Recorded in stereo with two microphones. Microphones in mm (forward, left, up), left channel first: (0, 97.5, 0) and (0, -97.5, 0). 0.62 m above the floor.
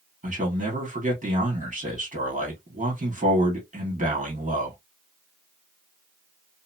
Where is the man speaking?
40° right (ahead or behind), 1.6 m.